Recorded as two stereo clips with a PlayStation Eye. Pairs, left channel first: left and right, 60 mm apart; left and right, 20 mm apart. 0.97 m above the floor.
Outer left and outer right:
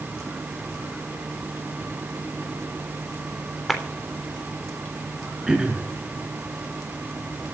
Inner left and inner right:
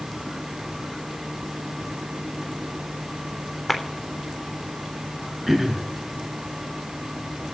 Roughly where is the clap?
Centre.